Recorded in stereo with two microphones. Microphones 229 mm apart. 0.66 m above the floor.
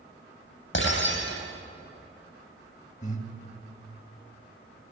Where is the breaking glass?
60° left (ahead or behind), 8.5 m.